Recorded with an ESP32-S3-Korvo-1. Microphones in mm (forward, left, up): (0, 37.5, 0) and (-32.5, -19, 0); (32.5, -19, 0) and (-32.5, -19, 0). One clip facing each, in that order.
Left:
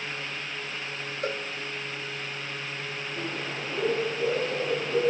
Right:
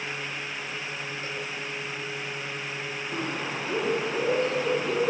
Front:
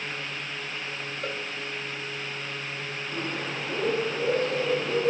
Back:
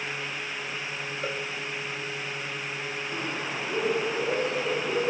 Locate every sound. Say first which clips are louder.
1.2 s a cowbell: left 8 dB, back 1 dB; 95° left, 2.5 m
3.1 s a bird: right 3 dB, front 2 dB; 105° right, 10 m